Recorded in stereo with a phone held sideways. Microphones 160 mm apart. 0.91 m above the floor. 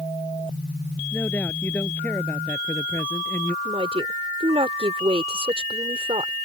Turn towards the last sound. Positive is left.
turn(degrees=-35)  # may be behind; listen again after turning